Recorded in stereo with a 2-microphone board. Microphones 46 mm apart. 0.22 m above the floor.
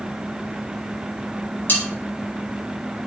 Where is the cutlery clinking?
40° left (ahead or behind), 0.9 m.